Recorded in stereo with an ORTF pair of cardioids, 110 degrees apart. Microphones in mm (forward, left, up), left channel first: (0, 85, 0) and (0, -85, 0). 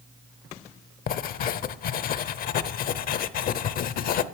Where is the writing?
55° left, 0.6 m.